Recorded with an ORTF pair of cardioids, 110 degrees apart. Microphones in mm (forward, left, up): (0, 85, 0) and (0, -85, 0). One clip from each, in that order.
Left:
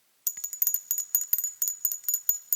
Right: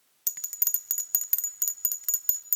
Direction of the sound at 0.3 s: 5° right.